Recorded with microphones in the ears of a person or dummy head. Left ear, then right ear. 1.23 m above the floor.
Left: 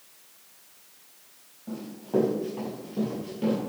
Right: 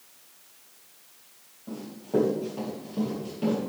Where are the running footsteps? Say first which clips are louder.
Even; 10° left (ahead or behind), 4.5 m.